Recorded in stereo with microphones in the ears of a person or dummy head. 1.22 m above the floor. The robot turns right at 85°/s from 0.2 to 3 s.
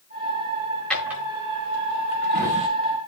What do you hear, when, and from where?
0.9 s a drawer: 10° left (ahead or behind), 1.7 m; by 2.7 s 35° right (ahead or behind), 1.7 m